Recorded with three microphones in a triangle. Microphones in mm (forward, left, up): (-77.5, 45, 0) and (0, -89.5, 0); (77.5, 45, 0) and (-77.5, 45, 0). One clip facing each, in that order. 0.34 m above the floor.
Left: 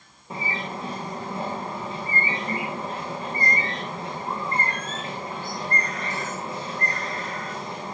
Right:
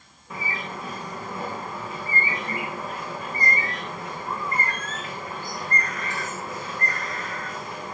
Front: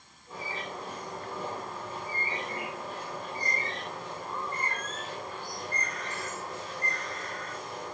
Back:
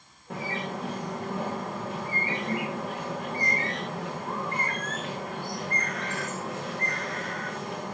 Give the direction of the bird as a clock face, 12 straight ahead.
6 o'clock.